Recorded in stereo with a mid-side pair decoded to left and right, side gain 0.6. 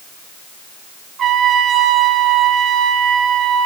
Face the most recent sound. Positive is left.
turn(degrees=-45)